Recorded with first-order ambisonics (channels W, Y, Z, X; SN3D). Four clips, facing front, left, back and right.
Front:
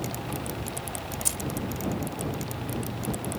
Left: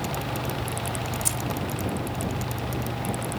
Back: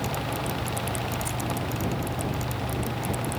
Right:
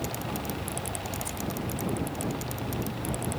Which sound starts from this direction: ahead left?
Keys jangling, at 1.2 s.